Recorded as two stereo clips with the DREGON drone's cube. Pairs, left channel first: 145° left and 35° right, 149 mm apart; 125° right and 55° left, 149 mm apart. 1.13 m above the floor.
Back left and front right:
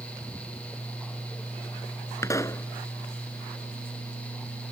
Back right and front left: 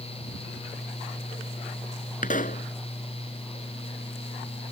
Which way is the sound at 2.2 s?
145° right.